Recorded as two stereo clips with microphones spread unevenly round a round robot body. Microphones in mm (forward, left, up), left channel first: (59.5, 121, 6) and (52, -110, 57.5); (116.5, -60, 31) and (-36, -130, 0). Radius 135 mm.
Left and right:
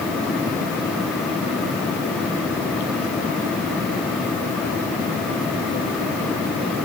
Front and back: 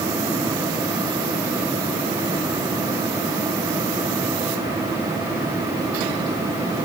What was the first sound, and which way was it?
Only background noise.